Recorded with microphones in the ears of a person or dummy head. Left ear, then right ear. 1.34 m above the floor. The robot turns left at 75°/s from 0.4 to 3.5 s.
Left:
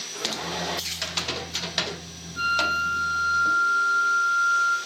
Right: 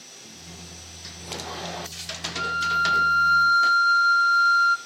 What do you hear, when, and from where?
2.4 s a flute: 15° left, 0.5 m; by 4.8 s 70° right, 0.5 m